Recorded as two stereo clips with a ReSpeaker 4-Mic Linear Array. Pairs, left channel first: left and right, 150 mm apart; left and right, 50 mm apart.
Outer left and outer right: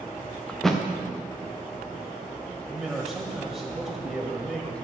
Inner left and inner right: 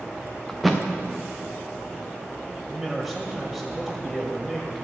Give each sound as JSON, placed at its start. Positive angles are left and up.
{"t": 0.5, "sound": "a thud", "side_deg": 0, "distance_m": 1.9}
{"t": 2.7, "sound": "a man speaking", "side_deg": 0, "distance_m": 1.6}